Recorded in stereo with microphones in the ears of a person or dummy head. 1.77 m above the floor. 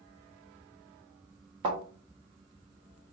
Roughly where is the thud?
Centre.